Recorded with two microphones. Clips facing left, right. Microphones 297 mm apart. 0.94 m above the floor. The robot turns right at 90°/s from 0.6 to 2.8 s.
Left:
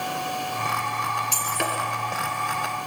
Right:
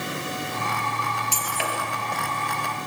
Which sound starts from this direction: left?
Breaking glass, at 1.3 s.